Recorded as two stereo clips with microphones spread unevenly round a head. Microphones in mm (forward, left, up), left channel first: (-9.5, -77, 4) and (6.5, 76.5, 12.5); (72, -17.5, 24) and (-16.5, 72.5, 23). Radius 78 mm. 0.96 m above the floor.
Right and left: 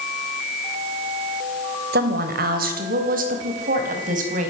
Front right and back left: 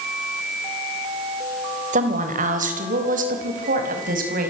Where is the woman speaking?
115° left, 4 m; by 4.5 s 125° left, 5.5 m.